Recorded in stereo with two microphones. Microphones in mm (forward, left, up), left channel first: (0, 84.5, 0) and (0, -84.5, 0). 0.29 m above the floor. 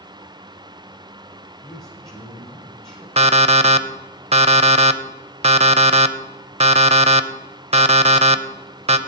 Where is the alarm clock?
40° right (ahead or behind), 0.6 m.